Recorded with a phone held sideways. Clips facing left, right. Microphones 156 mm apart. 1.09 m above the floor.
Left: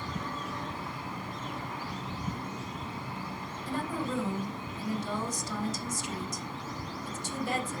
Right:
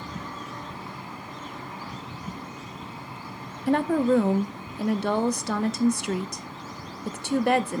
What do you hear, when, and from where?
3.7 s a woman speaking: 65° right (ahead or behind), 0.8 m